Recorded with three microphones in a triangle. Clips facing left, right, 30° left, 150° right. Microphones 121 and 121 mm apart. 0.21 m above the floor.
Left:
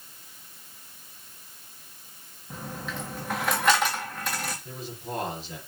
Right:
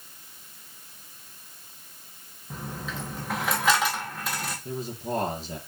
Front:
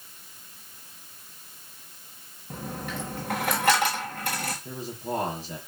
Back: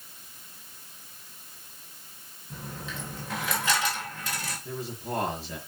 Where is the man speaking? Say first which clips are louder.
Right 5 dB, front 1 dB; 40° right, 4.5 m.